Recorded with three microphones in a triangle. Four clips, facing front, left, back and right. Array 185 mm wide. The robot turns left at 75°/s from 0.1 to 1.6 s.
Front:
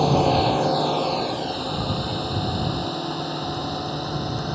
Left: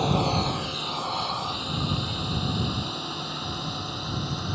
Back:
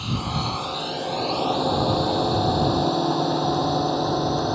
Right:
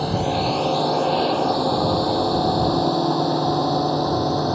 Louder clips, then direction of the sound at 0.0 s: Right 3 dB, front 10 dB; 5° right.